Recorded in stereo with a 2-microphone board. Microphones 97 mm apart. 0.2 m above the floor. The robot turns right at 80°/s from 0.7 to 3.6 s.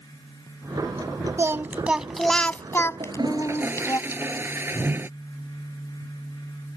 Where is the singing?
60° right; by 4.0 s 115° left.